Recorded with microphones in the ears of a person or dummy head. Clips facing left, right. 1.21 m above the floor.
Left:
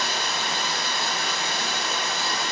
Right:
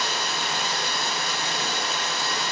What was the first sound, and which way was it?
Running water, 45° left (ahead or behind).